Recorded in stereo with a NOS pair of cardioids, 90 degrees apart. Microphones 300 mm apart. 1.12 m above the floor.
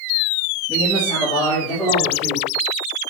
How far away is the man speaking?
About 6 m.